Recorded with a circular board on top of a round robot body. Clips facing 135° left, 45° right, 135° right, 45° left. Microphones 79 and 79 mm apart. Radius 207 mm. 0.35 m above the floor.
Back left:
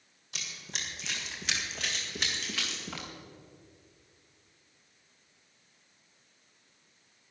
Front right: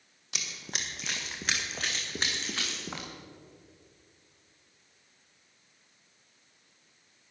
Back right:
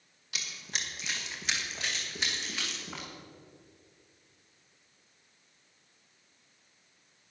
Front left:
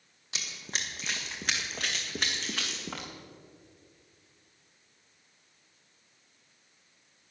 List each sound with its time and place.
0.3 s running footsteps: 20° right, 1.5 m; by 3.1 s 15° left, 2.5 m